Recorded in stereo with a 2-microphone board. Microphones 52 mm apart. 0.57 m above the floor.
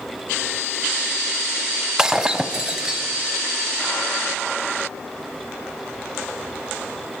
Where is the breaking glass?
15° right (ahead or behind), 1.3 m.